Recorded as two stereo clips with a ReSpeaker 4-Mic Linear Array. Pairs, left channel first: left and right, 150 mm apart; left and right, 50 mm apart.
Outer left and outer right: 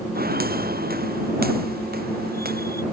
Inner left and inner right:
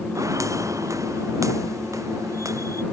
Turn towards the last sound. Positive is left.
turn(degrees=-75)  # may be behind; listen again after turning